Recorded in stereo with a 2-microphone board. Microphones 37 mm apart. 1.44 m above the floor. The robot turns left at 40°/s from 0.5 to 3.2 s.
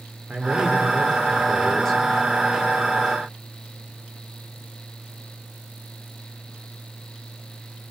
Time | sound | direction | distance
0.3 | a man speaking | 140° right | 4 m